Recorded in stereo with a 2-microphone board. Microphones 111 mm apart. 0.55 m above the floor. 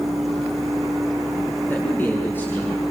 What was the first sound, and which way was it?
A man speaking, 20° left (ahead or behind).